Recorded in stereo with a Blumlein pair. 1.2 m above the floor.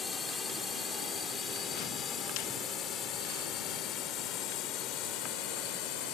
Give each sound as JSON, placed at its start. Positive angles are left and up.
{"t": 0.0, "sound": "a drone", "azimuth_deg": 15}